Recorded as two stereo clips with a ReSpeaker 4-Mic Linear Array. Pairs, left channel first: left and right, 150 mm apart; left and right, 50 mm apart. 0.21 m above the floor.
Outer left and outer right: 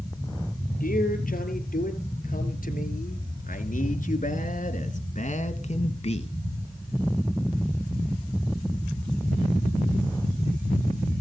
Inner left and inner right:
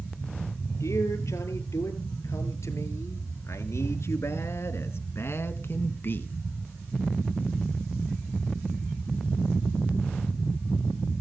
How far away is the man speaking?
About 4 m.